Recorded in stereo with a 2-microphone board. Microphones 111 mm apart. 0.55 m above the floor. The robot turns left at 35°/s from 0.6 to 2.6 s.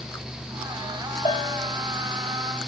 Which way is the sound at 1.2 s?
55° left (ahead or behind).